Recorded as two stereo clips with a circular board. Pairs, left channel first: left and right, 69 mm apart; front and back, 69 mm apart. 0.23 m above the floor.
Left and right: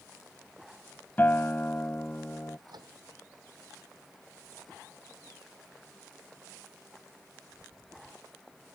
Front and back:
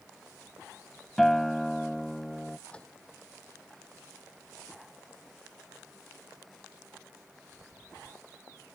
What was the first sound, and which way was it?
A guitar, 75° left.